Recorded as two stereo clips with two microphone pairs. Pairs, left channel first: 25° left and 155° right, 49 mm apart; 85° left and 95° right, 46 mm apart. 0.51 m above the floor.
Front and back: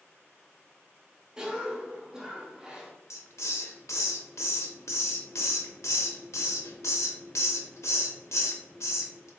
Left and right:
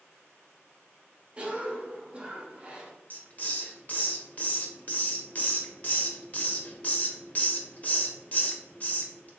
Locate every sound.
1.4 s a cough: 110° right, 0.9 m
3.1 s a hiss: 35° left, 0.7 m